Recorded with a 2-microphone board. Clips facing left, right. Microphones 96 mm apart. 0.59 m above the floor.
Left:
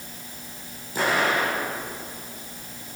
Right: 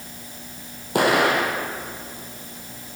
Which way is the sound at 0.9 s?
70° right (ahead or behind).